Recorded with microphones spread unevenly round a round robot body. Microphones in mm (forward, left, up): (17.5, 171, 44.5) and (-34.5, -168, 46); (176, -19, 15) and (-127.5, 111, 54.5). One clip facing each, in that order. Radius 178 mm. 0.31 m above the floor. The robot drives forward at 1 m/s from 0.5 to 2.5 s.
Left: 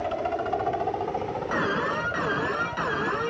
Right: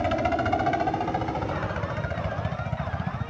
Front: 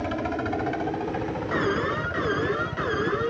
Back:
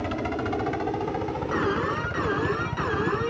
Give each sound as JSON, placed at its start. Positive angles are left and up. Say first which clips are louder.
{"t": 0.0, "sound": "a helicopter", "louder": "right 3 dB, even", "azimuth_deg": -120}
{"t": 1.5, "sound": "an alarm", "louder": "left 4 dB, front 1 dB", "azimuth_deg": 65}